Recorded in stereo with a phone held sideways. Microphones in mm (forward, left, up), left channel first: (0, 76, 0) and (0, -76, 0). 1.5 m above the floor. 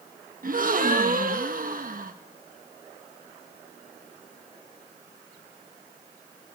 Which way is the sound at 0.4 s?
60° right (ahead or behind).